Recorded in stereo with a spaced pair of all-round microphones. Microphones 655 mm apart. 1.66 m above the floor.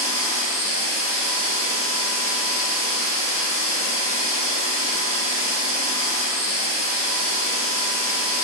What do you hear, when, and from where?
0.0 s a machine running: 20° left (ahead or behind), 1.9 m